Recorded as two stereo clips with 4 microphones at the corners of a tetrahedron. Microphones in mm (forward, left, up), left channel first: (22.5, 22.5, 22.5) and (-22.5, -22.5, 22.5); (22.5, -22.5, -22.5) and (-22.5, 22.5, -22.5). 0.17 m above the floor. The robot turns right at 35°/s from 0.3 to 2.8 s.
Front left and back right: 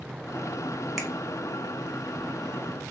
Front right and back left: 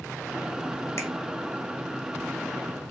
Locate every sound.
1.0 s a finger snap: 55° right, 1.1 m; by 1.1 s 50° right, 1.1 m